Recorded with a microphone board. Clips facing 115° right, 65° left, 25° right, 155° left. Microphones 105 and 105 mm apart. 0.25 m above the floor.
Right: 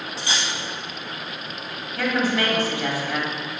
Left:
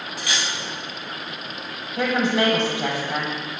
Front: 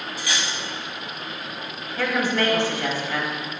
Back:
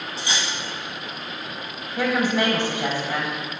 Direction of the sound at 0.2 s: 155° right.